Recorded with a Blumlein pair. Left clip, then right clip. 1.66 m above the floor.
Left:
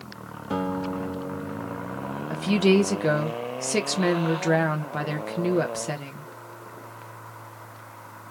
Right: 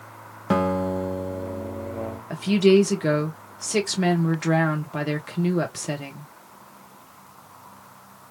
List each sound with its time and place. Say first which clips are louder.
0.5 s a guitar: right 6 dB; 50° right, 1.2 m
2.3 s a woman speaking: right 3 dB; straight ahead, 1.2 m